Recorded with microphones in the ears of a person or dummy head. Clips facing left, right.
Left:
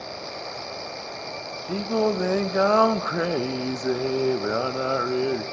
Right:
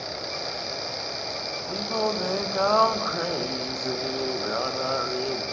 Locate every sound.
1.7 s singing: 30° left (ahead or behind), 0.5 m